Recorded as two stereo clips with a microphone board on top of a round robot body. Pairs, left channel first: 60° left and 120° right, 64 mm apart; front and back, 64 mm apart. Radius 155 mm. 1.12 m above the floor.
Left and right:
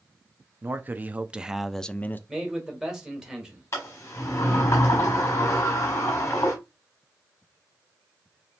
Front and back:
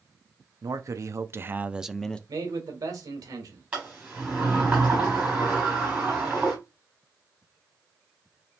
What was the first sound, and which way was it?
A man speaking, 170° right.